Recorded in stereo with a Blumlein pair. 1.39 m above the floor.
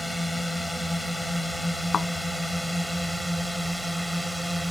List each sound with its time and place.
0.0 s a drone: straight ahead
1.9 s a thud: 20° left